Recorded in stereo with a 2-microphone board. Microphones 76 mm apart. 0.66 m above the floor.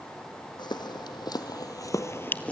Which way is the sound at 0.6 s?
75° left (ahead or behind).